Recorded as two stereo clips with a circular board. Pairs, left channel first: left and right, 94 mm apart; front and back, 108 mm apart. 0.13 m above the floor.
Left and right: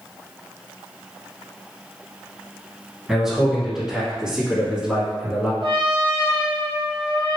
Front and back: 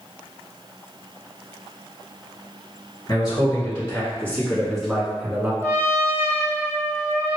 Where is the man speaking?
5° right, 1.8 m; by 5.5 s 135° right, 1.5 m.